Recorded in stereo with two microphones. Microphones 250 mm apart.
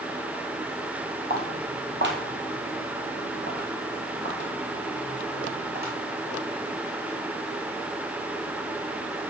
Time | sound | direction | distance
1.3 | footsteps | 40° right (ahead or behind) | 1.7 m